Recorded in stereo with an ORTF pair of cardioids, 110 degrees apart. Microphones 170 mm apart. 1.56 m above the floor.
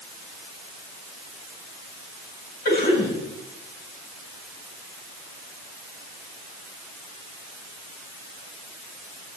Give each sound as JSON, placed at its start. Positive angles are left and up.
{"t": 2.6, "sound": "a cough", "azimuth_deg": 55, "distance_m": 8.5}